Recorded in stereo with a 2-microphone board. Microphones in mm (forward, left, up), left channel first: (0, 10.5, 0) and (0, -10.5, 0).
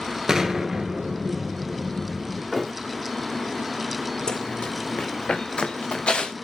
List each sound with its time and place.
0.3 s an explosion: 35° right (ahead or behind), 2 m
2.5 s a thud: centre (ahead or behind), 3 m
4.3 s running footsteps: 50° left (ahead or behind), 0.6 m; by 6.3 s 85° left, 1.7 m